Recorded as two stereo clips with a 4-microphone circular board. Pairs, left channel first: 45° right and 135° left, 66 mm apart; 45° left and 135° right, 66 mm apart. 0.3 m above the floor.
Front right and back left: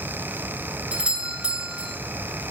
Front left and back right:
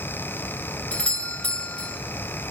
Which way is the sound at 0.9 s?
90° left.